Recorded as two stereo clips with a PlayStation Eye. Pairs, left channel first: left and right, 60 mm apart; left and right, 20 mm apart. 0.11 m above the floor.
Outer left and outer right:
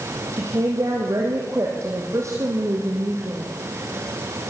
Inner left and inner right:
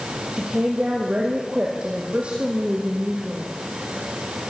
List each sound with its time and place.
0.3 s a woman speaking: 55° right (ahead or behind), 3.5 m